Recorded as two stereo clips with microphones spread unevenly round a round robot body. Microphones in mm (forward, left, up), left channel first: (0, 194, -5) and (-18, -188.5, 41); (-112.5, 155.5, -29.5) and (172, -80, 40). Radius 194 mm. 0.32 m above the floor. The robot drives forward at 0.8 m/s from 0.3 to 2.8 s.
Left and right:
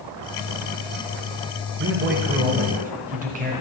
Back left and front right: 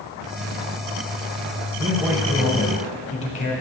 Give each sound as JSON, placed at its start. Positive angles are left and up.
{"t": 1.8, "sound": "a man speaking", "azimuth_deg": -110, "distance_m": 0.9}